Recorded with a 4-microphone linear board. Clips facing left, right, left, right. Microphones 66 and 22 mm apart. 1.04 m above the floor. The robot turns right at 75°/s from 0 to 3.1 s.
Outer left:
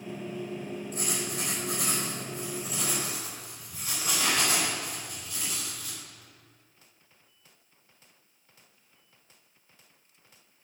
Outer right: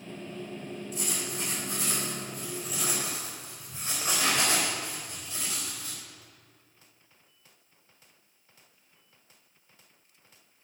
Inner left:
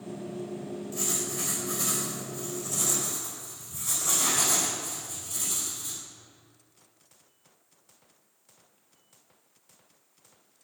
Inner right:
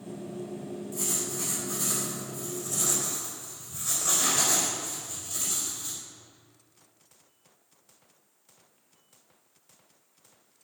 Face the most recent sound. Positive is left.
turn(degrees=-150)